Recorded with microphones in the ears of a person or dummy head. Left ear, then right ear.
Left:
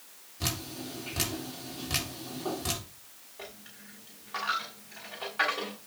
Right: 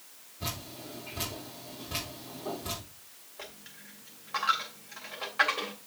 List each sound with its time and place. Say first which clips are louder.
0.4 s dripping: left 4 dB; 70° left (ahead or behind), 3 m
3.4 s a dropped coin: even; 20° right (ahead or behind), 2.0 m